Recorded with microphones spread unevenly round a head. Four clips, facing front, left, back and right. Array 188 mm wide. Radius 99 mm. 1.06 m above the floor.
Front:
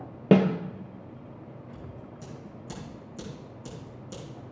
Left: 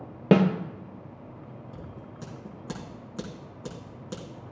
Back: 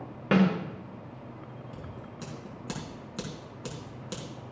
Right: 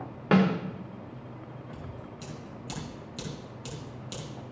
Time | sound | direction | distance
0.3 | a snare drum | 40° left | 0.9 m
1.7 | scissors | 150° left | 5 m